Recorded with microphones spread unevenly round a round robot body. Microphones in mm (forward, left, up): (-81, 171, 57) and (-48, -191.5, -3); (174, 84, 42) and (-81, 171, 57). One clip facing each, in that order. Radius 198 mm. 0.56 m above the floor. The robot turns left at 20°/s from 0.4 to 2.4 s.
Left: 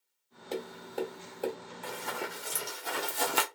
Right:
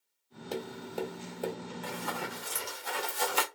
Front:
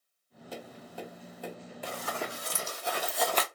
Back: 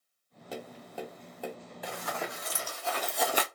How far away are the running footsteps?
About 1.7 m.